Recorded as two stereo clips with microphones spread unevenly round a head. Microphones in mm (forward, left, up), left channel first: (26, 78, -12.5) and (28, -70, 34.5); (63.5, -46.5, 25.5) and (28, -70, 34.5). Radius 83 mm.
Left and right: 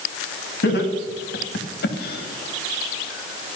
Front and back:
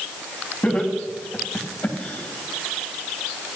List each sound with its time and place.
0.6 s laughter: 110° left, 3 m; by 3.5 s 60° left, 1.2 m